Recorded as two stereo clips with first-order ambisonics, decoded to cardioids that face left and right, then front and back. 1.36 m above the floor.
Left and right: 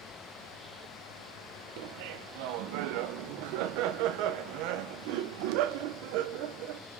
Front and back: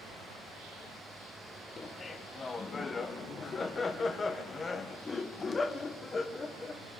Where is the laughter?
75° right, 1.0 m.